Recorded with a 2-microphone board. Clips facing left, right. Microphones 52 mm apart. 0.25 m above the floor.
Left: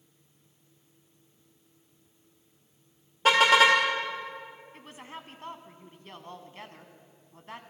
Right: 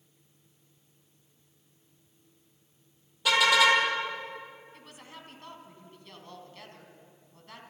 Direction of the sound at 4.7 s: 30° left (ahead or behind).